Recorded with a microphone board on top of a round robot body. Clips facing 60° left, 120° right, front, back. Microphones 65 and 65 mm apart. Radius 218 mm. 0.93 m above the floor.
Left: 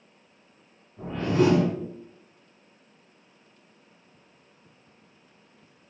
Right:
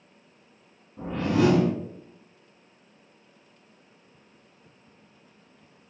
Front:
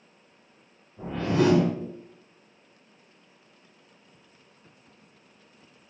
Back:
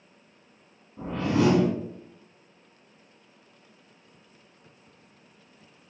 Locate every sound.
1.0 s a whoosh: 145° right, 1.4 m